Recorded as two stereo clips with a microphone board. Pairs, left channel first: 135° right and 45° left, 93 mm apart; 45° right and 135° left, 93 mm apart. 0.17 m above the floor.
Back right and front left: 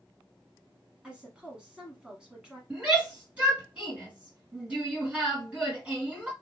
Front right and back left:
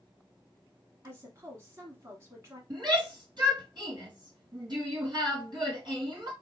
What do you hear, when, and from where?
1.0 s a woman speaking: 115° left, 1.1 m
2.7 s a shout: 115° left, 3 m